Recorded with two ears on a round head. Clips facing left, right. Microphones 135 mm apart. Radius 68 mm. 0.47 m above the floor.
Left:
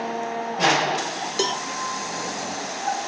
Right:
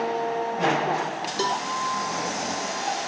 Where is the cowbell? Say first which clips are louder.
Even; 25° left (ahead or behind), 1.0 m.